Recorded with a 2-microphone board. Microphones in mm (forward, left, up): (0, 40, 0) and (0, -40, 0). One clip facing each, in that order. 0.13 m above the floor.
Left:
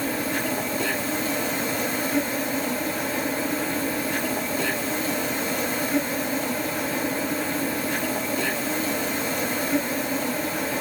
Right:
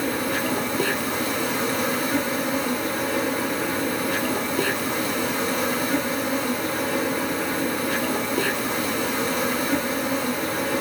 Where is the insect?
65° right (ahead or behind), 1.4 m.